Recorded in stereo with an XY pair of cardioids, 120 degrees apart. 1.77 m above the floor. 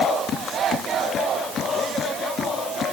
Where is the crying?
No crying in this recording.